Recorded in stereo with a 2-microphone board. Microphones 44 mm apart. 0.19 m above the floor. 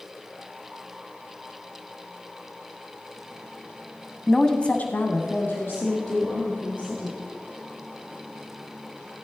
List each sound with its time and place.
4.3 s a woman speaking: centre (ahead or behind), 1.0 m; by 7.2 s 60° left (ahead or behind), 4.5 m